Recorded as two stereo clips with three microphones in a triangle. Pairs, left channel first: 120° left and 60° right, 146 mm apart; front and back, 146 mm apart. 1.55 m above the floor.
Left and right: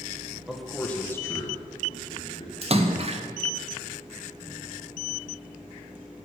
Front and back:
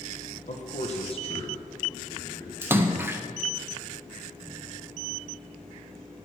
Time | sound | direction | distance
0.5 | a man speaking | 25° left | 1.0 m
2.6 | a splash | 105° right | 0.8 m